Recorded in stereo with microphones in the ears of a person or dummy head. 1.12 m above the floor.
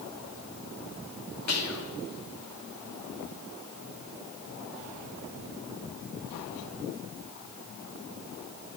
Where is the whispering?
85° left, 2 m.